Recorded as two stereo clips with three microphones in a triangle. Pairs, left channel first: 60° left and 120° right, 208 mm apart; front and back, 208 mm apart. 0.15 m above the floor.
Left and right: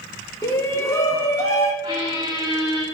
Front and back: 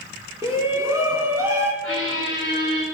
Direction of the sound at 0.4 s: 120° left.